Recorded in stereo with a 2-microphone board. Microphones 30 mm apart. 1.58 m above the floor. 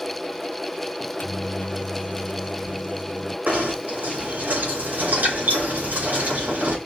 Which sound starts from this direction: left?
A microwave, at 1.0 s.